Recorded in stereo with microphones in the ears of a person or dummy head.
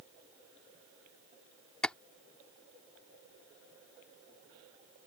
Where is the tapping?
5° left (ahead or behind).